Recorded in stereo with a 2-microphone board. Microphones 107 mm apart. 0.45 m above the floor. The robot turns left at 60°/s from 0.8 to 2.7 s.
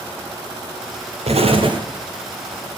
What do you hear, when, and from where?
1.3 s an explosion: 105° right, 1.9 m; by 1.8 s 140° right, 1.9 m